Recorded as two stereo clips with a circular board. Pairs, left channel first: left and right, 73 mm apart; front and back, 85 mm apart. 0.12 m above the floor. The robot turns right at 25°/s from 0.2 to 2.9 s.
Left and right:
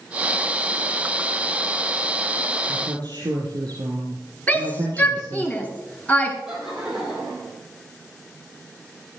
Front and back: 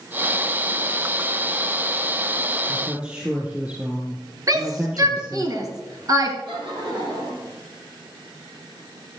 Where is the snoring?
I don't hear snoring.